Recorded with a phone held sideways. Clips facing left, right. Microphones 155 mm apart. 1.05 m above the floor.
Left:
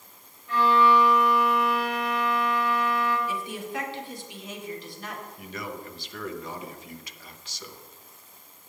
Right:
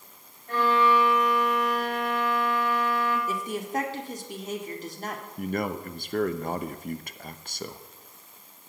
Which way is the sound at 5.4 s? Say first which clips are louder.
Right 11 dB; 55° right (ahead or behind).